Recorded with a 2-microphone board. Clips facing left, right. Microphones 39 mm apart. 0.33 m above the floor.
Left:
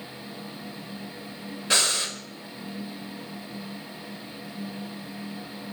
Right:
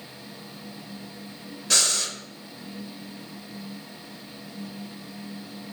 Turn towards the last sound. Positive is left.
turn(degrees=25)  # may be behind; listen again after turning